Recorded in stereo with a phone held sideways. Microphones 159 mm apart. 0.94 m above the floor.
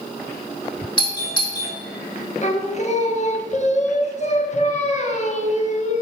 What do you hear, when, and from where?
1.0 s a doorbell: 30° left (ahead or behind), 3.5 m
2.4 s singing: 45° left (ahead or behind), 1.1 m